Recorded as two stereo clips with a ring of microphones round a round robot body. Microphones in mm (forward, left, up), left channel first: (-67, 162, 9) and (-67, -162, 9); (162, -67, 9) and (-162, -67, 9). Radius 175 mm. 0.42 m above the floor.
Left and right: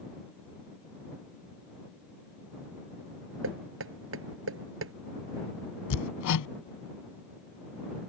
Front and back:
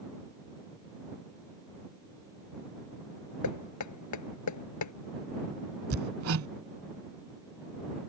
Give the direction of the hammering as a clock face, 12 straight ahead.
8 o'clock.